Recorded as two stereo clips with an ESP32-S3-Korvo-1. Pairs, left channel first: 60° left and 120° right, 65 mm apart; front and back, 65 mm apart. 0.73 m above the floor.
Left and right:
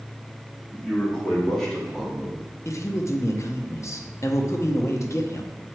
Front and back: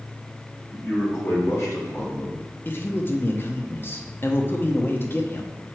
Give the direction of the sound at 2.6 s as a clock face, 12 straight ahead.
11 o'clock.